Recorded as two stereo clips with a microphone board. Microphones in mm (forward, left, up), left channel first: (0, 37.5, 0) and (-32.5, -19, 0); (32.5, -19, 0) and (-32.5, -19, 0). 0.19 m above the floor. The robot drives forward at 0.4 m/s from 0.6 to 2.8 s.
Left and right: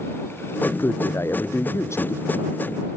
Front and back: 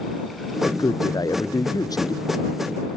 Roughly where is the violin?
No violin in this recording.